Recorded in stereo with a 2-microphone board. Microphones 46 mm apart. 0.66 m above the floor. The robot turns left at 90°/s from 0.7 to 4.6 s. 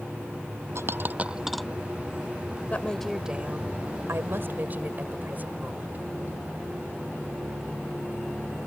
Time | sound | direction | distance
0.8 | a dropped coin | 70° right (ahead or behind) | ?
2.7 | a woman speaking | 35° left | ?